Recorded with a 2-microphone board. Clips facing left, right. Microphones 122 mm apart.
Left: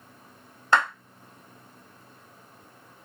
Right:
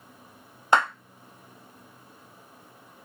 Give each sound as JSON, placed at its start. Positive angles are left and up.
{"t": 0.7, "sound": "a clap", "side_deg": -20, "distance_m": 1.6}